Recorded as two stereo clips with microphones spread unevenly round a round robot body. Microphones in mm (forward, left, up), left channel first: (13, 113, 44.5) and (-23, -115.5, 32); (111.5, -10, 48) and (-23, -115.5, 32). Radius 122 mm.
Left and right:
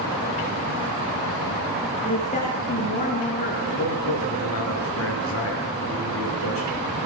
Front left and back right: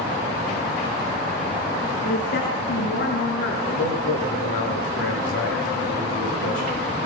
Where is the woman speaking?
20° left, 6 m; by 3.5 s 30° left, 5 m.